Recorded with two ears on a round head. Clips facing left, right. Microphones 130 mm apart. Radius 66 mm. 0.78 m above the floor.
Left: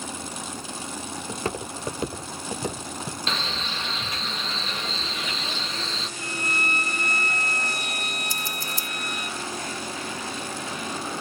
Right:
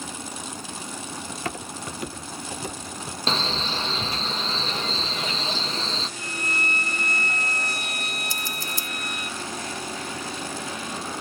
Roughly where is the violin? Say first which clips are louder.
Left 1 dB; right.